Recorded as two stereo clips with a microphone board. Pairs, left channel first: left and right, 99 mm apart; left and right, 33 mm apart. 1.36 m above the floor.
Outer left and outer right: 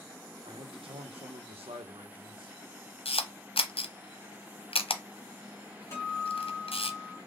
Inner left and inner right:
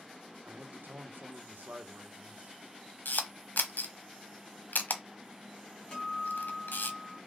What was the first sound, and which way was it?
A man speaking, 60° right (ahead or behind).